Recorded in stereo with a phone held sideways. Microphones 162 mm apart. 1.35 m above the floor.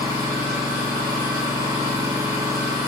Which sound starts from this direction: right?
An engine running, at 0.0 s.